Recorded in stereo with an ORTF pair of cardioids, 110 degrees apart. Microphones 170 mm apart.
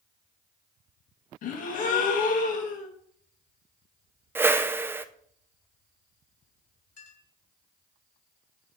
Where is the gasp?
55° left, 1.5 m.